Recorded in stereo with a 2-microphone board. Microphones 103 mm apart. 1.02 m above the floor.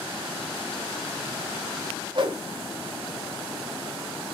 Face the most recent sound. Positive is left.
turn(degrees=-50)  # may be behind; listen again after turning